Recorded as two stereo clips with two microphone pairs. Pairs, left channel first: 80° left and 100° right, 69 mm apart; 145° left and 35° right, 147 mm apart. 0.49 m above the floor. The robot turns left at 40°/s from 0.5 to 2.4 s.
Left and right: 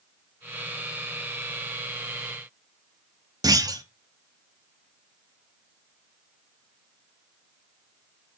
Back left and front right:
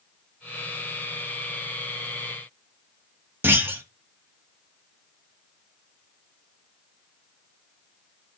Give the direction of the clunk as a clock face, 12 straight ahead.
4 o'clock.